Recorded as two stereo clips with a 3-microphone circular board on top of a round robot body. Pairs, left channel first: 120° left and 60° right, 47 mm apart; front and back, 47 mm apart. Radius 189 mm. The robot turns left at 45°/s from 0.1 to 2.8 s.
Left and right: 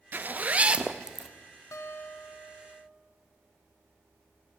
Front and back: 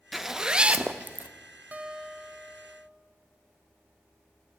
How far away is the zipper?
About 1.1 m.